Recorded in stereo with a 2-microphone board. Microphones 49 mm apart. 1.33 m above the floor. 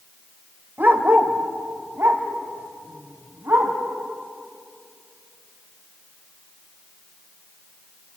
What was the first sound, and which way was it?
A dog barking, 40° right (ahead or behind).